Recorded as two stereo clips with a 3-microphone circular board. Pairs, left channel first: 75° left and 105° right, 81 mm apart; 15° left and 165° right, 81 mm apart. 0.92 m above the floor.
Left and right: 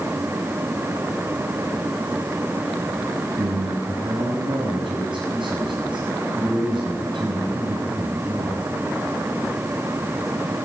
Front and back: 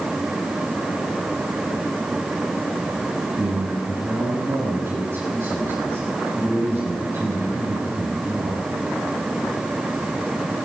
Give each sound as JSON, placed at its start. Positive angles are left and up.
{"t": 3.4, "sound": "a man speaking", "azimuth_deg": -110, "distance_m": 5.5}